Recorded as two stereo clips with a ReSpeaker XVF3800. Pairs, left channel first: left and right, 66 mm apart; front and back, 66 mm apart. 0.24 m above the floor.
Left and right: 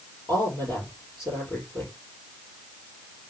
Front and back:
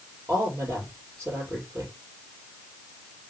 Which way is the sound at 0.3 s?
125° left.